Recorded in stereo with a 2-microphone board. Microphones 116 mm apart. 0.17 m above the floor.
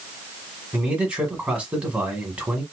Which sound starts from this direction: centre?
A man speaking, at 0.7 s.